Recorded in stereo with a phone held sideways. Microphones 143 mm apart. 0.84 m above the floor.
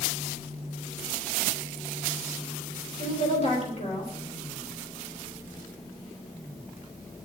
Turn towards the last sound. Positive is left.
turn(degrees=45)  # may be behind; listen again after turning